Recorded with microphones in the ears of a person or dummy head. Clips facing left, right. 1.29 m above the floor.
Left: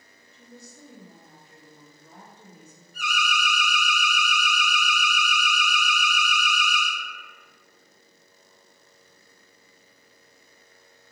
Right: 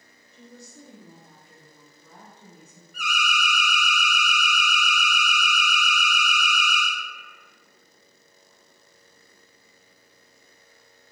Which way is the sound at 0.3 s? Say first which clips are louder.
Right 2 dB; 45° right (ahead or behind).